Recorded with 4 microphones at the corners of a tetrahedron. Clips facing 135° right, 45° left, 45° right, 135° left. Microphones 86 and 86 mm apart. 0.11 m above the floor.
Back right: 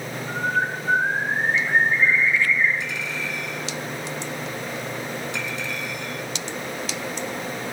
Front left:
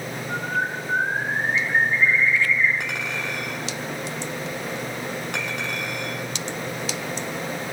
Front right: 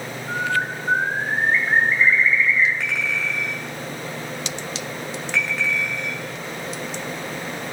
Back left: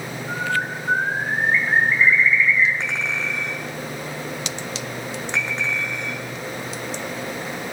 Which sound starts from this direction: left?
A clink, at 2.8 s.